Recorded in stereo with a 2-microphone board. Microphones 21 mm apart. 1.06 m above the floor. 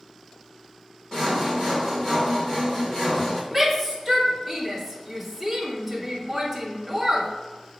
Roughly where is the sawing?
Left.